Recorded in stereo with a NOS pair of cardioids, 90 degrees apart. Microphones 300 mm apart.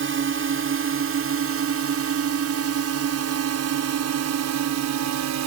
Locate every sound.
0.0 s a drone: 45° right; by 5.5 s 65° right